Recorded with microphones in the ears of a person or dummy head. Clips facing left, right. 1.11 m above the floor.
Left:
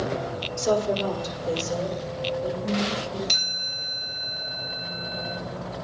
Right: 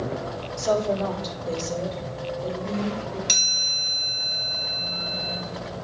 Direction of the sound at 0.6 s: 20° left (ahead or behind).